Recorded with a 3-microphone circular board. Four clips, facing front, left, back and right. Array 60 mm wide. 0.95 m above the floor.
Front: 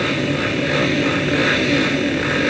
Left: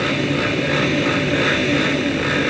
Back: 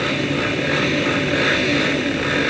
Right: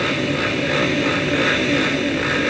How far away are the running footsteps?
I don't hear running footsteps.